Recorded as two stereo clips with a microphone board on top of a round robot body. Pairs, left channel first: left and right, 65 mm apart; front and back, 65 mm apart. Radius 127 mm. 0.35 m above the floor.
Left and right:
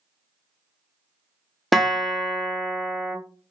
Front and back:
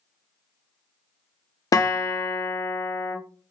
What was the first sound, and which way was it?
A guitar, 5° left.